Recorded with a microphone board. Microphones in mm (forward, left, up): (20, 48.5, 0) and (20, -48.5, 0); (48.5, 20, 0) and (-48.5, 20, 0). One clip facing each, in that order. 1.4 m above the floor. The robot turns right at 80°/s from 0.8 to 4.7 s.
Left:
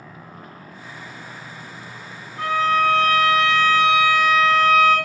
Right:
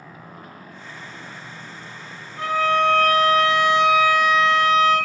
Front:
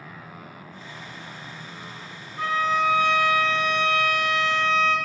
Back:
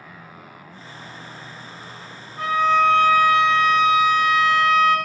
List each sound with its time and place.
2.4 s a violin: 130° right, 1.7 m; by 5.0 s 60° left, 1.7 m